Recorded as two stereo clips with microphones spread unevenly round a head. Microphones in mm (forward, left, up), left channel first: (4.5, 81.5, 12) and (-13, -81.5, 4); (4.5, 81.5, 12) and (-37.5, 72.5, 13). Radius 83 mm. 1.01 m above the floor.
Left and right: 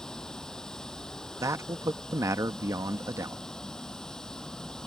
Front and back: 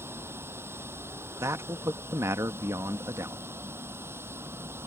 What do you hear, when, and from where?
0.0 s running water: 170° left
1.4 s a man speaking: 170° right